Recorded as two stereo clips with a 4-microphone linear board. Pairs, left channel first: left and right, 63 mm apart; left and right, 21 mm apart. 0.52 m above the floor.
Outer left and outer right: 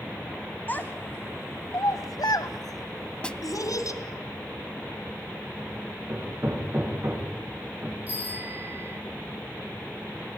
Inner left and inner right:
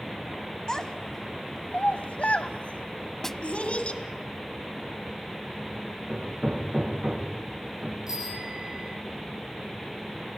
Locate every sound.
0.7 s a child speaking: 30° left (ahead or behind), 2.0 m; by 4.0 s 60° left (ahead or behind), 3 m
3.2 s a snare drum: 15° left (ahead or behind), 0.6 m
6.1 s hammering: 40° right (ahead or behind), 8 m
8.1 s a bicycle bell: 25° right (ahead or behind), 8 m